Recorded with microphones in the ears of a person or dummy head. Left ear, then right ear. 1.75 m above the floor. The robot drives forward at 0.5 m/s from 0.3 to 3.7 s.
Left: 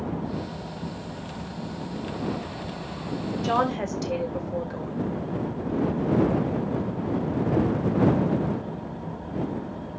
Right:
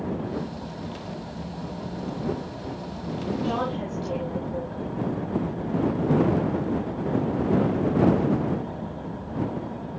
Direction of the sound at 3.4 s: 65° left (ahead or behind).